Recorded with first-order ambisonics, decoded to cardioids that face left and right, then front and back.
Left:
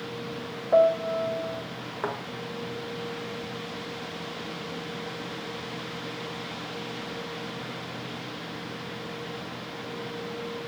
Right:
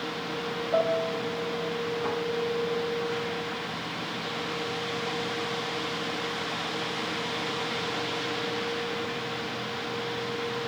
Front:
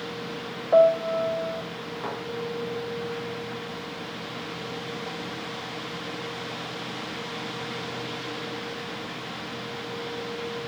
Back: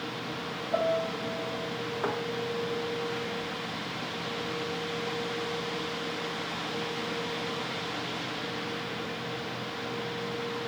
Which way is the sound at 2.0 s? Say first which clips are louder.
Left 2 dB, back 2 dB; 100° left.